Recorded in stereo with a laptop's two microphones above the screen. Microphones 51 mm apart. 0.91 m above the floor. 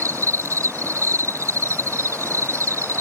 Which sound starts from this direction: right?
An insect, at 0.0 s.